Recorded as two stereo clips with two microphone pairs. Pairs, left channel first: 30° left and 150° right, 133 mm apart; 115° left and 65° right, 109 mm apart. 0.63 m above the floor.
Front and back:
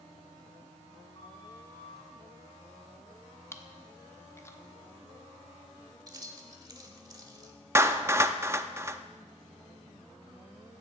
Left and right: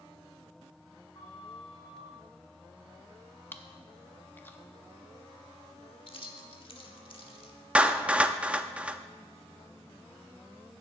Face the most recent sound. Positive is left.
turn(degrees=-130)